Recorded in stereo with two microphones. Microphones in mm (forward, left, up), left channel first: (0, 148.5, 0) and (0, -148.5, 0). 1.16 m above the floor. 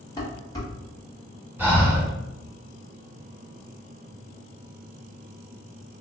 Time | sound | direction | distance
0.2 | dishes clattering | 10° left (ahead or behind) | 1.0 m
1.6 | breathing | 5° right (ahead or behind) | 1.4 m